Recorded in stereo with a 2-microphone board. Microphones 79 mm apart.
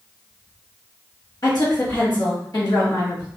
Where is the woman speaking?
55° left (ahead or behind), 1.2 m.